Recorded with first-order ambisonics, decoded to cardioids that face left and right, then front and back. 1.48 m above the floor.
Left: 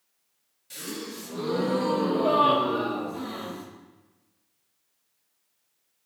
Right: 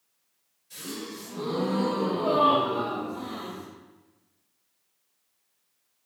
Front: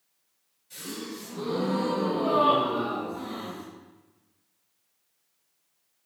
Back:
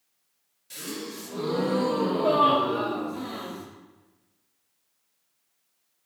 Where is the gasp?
135° left, 1.5 m.